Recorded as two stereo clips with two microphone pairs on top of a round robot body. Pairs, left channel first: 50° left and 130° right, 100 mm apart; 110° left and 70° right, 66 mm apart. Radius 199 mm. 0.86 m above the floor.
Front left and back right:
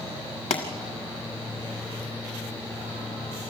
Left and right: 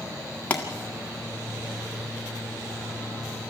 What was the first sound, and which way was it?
A pop, 40° left.